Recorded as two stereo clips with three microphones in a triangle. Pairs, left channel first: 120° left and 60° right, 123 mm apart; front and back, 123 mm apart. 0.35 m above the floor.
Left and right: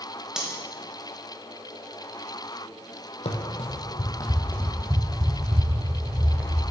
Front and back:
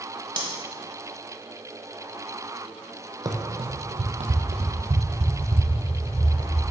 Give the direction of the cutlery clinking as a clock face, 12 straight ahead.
5 o'clock.